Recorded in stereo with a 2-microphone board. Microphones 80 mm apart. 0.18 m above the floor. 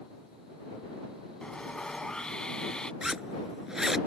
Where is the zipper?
5° right (ahead or behind).